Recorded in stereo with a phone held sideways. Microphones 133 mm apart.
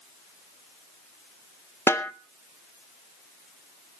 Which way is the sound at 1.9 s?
20° left (ahead or behind).